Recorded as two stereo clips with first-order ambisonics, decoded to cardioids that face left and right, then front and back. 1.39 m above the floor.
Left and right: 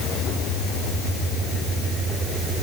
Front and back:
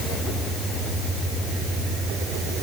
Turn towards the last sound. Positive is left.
No sound to turn to.